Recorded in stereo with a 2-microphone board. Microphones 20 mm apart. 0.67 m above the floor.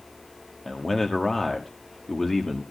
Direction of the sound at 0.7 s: 20° left (ahead or behind).